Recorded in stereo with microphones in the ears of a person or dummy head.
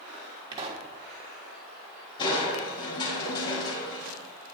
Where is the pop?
30° right (ahead or behind), 1.5 m.